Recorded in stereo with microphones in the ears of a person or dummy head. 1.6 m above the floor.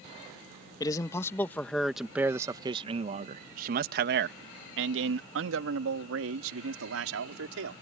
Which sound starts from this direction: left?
A man speaking, at 0.8 s.